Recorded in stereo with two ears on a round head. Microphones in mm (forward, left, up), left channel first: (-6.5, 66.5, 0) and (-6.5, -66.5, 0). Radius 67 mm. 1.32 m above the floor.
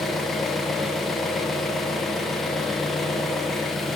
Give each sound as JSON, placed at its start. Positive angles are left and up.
{"t": 0.0, "sound": "an engine running", "side_deg": 0, "distance_m": 0.8}